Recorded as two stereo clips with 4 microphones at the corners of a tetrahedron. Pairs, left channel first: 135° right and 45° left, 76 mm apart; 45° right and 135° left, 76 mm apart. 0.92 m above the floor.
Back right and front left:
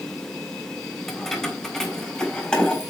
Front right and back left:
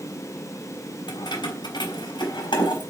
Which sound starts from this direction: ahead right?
Keys jangling, at 1.1 s.